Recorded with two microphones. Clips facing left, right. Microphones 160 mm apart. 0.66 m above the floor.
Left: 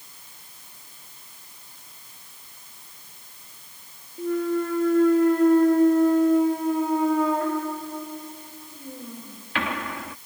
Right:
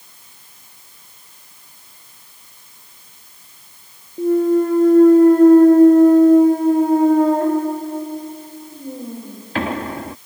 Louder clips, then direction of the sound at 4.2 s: Right 10 dB; 35° right (ahead or behind).